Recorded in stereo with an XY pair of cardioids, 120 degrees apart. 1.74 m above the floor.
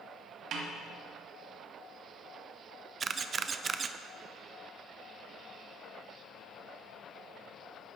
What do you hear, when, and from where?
0.5 s a snare drum: 65° right, 2.5 m
3.0 s a camera shutter: 35° right, 0.6 m